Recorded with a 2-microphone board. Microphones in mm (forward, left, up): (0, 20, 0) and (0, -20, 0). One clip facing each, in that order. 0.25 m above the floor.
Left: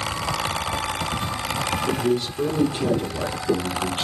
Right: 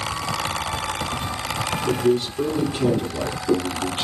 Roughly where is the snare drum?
I don't hear a snare drum.